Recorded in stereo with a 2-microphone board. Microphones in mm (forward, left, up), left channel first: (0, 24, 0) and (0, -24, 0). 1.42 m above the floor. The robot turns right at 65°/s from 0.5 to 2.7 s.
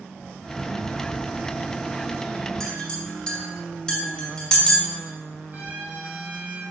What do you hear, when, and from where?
2.6 s a clink: 10° left (ahead or behind), 2 m; by 4.8 s 15° left (ahead or behind), 2 m
5.5 s a trumpet: 45° right (ahead or behind), 3 m